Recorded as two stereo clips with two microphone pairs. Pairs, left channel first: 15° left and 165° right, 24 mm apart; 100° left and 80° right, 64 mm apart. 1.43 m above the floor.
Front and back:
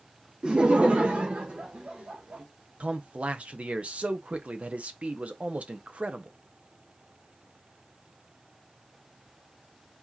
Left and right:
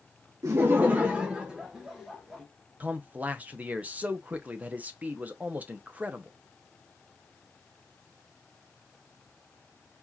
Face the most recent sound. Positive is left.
turn(degrees=-145)